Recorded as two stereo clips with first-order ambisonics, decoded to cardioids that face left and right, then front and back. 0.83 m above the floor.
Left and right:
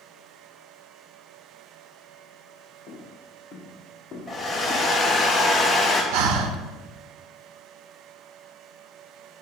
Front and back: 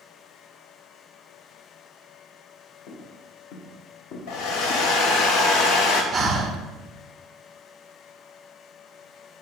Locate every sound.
2.9 s footsteps: 15° left, 5 m; by 4.9 s 20° left, 3.5 m
4.3 s a hair dryer: straight ahead, 2 m
6.1 s breathing: 100° right, 1.3 m